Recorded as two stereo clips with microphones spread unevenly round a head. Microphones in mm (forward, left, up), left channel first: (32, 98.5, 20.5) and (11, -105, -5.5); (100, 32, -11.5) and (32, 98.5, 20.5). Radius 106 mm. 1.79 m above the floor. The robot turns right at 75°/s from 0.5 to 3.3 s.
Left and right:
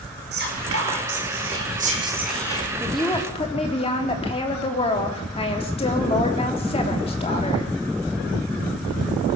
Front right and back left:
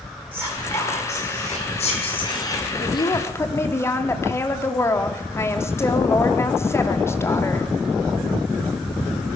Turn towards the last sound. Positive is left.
turn(degrees=25)